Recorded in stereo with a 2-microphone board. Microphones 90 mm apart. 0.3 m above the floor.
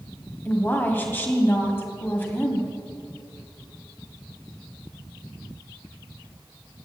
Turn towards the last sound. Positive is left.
turn(degrees=25)  # may be behind; listen again after turning